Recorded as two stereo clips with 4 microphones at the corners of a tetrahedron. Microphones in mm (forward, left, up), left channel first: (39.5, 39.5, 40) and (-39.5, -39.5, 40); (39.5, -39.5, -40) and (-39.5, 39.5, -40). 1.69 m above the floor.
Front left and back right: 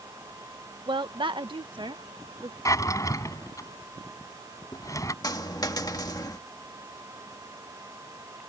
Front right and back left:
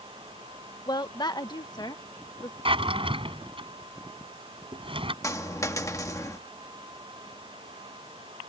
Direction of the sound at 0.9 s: 95° right.